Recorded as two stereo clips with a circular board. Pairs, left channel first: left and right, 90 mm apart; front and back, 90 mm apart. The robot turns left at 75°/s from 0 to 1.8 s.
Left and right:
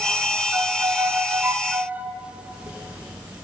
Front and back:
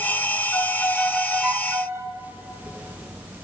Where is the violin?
50° right, 0.9 m; by 2.1 s 145° right, 0.9 m.